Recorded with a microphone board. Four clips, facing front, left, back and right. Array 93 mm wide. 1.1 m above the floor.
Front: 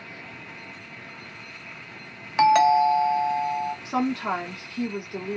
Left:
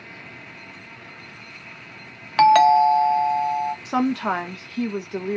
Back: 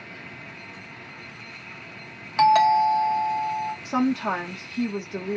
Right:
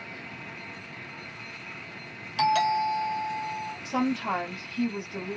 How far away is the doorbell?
About 0.7 m.